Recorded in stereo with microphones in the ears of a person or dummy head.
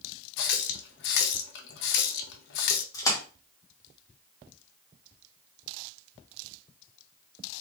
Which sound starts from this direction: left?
A running tap, at 0.4 s.